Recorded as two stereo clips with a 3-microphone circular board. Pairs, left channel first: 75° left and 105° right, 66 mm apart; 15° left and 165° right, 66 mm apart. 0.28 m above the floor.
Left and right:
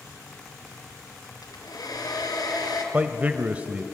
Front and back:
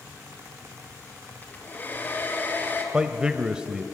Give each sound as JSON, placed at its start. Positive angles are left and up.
{"t": 1.4, "sound": "a hair dryer", "azimuth_deg": 75, "distance_m": 4.0}
{"t": 2.9, "sound": "a man speaking", "azimuth_deg": -110, "distance_m": 0.9}